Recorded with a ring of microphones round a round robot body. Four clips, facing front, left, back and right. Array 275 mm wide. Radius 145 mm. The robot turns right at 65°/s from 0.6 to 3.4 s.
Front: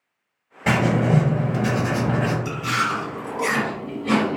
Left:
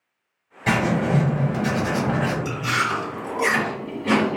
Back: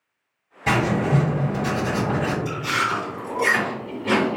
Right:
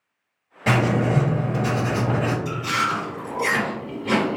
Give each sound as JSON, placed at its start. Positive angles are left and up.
{"t": 0.7, "sound": "writing", "azimuth_deg": -35, "distance_m": 1.5}
{"t": 2.5, "sound": "chewing", "azimuth_deg": 45, "distance_m": 1.6}